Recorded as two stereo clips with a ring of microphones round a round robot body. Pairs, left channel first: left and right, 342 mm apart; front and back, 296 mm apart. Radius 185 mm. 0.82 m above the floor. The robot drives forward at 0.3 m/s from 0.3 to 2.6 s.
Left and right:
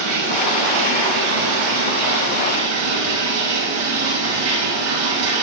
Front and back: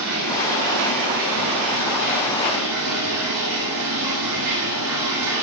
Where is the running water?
130° right, 6 m; by 5.4 s 135° right, 6.5 m.